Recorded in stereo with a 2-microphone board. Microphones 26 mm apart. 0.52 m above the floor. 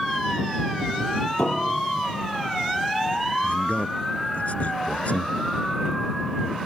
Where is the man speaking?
55° left (ahead or behind).